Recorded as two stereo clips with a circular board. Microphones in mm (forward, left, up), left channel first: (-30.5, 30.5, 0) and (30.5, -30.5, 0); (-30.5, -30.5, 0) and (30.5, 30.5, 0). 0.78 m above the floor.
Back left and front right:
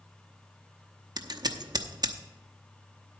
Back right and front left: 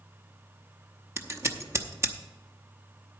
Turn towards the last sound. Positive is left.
turn(degrees=-10)